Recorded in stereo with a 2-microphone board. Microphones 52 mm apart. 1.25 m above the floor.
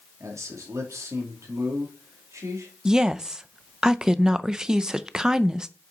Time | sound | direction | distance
0.2 | a man speaking | 75° right (ahead or behind) | 2.5 m
2.9 | a woman speaking | 10° right (ahead or behind) | 0.6 m